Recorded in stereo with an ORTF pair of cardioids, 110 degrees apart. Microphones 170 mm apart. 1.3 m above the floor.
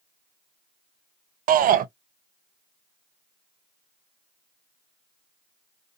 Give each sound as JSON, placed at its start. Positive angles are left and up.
{"t": 1.5, "sound": "a shout", "azimuth_deg": -55, "distance_m": 0.6}